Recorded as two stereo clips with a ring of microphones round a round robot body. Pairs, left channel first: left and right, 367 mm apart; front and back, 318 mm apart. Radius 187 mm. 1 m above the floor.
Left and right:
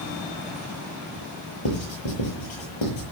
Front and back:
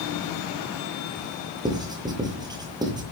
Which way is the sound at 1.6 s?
105° left.